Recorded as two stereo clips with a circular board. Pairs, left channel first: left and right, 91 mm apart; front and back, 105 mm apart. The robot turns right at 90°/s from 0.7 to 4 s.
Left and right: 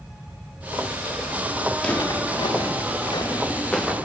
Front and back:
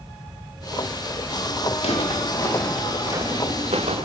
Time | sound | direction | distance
1.8 | footsteps | 5° left | 3.5 m